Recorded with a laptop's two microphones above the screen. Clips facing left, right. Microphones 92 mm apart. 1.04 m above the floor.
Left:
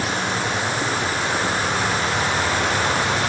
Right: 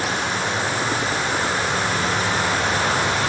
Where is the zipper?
I don't hear a zipper.